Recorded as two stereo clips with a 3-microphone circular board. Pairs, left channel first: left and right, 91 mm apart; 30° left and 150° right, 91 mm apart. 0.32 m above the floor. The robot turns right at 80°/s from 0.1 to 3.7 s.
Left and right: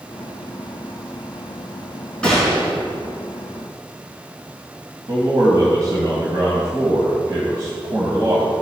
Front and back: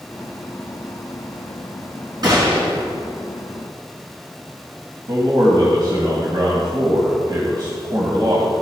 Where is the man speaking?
130° right, 2.0 m.